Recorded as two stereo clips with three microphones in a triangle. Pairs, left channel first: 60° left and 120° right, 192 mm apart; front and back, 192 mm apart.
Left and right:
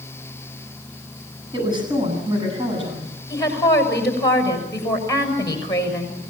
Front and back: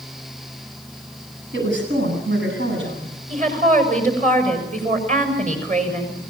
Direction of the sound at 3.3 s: 130° left.